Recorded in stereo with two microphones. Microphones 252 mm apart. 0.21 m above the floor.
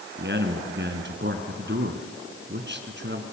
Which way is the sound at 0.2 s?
45° right (ahead or behind).